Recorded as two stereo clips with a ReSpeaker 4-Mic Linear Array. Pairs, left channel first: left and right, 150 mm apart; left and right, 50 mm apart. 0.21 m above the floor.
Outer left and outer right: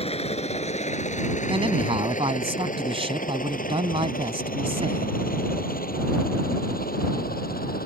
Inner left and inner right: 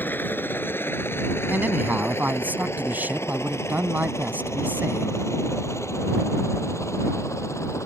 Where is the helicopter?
40° left (ahead or behind); by 7.9 s 80° left.